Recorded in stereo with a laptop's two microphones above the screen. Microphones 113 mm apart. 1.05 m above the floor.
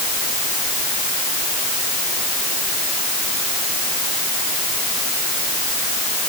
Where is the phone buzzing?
I don't hear a phone buzzing.